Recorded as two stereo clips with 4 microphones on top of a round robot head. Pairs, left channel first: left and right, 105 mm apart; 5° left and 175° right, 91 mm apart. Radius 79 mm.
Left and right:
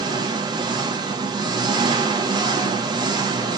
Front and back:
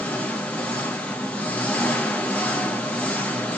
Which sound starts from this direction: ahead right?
An engine running, at 0.0 s.